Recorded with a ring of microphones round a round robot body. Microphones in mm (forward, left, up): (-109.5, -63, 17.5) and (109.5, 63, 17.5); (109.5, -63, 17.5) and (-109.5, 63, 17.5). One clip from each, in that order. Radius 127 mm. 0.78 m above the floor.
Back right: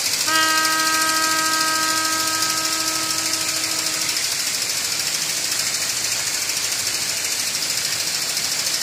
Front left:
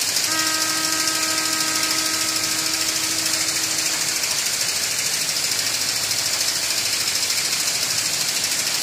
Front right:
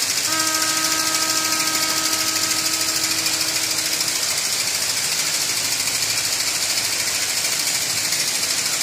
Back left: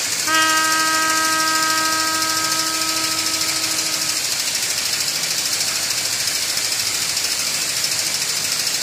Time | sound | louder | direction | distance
0.3 | a trumpet | back right 4 dB, back left 9 dB | 170° left | ?